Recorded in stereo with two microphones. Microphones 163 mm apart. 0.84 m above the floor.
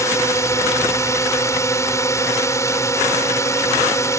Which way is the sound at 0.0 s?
20° left (ahead or behind).